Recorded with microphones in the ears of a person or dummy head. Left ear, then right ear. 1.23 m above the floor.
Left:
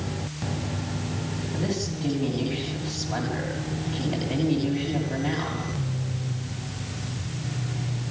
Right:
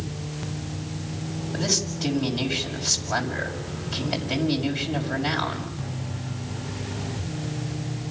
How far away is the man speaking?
About 6 m.